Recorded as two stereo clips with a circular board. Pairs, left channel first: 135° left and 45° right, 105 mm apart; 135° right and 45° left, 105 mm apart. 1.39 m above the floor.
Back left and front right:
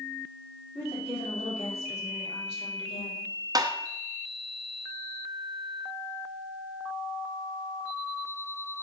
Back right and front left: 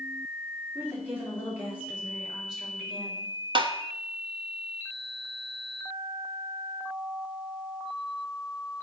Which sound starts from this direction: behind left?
A woman speaking, at 0.8 s.